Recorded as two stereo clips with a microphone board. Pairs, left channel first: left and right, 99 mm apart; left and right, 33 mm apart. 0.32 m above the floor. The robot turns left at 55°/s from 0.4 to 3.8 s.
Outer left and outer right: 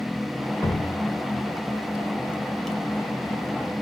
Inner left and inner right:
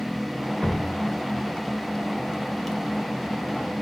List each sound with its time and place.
0.6 s dripping: 30° left (ahead or behind), 0.6 m; by 2.8 s centre (ahead or behind), 0.6 m